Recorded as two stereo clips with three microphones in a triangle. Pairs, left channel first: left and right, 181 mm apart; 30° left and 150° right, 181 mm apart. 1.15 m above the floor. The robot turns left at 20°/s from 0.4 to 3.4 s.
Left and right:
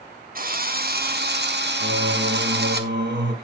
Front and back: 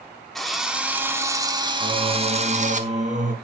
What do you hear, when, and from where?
0.3 s a drill: 60° right, 1.3 m; by 2.8 s 105° right, 1.3 m
1.8 s singing: 80° right, 3 m; by 3.3 s 110° right, 3 m